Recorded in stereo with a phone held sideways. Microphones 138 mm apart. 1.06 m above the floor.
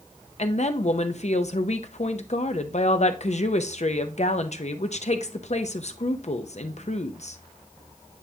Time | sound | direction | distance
0.4 | a woman speaking | 55° left (ahead or behind) | 0.7 m